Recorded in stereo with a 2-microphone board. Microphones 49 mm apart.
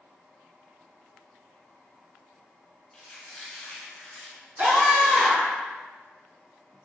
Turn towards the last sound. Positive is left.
turn(degrees=-35)  # may be behind; listen again after turning